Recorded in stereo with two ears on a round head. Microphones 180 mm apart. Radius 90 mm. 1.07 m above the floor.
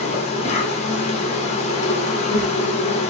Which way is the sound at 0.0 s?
35° left (ahead or behind).